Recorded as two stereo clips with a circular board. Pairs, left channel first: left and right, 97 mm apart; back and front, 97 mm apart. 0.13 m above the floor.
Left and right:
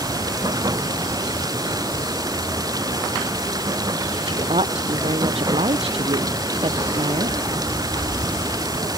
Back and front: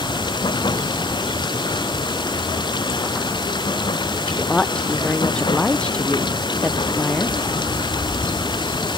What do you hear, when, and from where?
0.0 s running water: 140° right
4.3 s a woman speaking: 100° right